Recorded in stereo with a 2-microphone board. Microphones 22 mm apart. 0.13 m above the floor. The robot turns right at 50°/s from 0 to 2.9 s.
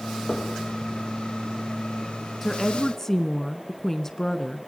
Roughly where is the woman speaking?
Centre.